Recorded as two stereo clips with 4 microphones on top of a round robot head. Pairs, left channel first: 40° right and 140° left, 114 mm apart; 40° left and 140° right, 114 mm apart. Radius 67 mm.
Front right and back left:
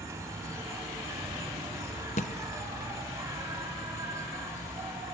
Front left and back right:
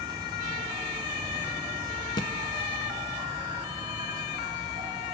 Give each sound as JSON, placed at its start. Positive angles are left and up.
{"t": 0.0, "sound": "an insect", "azimuth_deg": -175, "distance_m": 2.0}
{"t": 2.2, "sound": "a thud", "azimuth_deg": -15, "distance_m": 0.8}